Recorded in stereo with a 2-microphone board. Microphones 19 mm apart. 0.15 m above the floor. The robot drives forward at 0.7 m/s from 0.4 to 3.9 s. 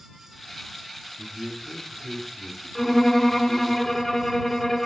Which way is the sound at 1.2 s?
20° left (ahead or behind).